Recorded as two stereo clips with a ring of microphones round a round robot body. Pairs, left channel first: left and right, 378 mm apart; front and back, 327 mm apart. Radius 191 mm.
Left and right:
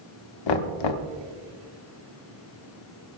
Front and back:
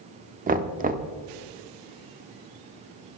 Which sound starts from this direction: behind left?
Knocking, at 0.5 s.